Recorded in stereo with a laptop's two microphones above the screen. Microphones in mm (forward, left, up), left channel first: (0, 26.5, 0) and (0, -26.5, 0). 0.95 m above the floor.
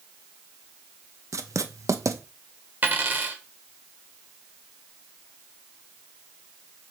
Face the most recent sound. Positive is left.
turn(degrees=-30)  # may be behind; listen again after turning